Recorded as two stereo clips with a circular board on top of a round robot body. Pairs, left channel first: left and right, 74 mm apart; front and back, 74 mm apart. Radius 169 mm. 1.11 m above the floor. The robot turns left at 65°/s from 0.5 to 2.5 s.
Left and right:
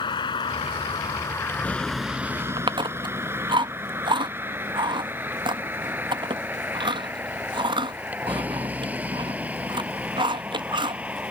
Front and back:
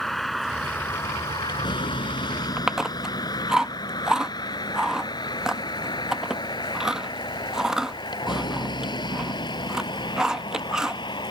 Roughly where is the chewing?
Right.